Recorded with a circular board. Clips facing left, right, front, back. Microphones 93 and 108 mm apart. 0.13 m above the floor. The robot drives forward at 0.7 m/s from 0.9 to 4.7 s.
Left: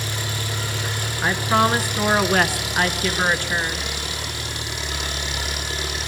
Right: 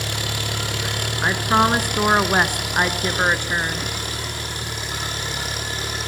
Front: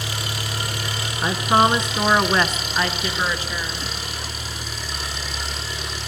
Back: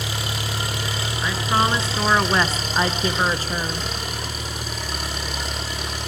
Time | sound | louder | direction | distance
0.0 | an engine running | right 1 dB, back 1 dB | 115° right | 4 m
1.2 | a woman speaking | right 1 dB, front 4 dB | 25° right | 1.3 m